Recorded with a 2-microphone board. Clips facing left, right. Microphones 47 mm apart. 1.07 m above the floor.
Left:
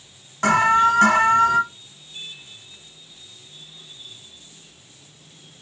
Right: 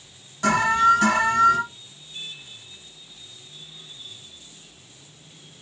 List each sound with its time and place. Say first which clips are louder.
0.4 s an alarm: left 2 dB; 50° left (ahead or behind), 0.9 m